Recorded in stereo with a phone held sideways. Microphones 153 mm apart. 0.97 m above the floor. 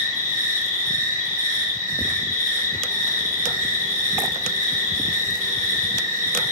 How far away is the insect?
About 1.8 m.